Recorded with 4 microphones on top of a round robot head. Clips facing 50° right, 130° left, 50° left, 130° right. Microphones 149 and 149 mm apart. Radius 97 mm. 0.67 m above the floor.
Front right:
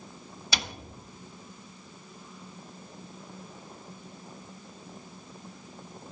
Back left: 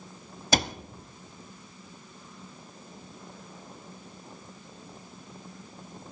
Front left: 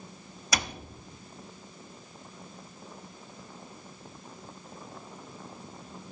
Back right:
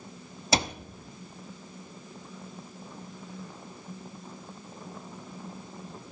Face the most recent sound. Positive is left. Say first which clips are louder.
# back left 9 dB, back right 5 dB
turn(degrees=170)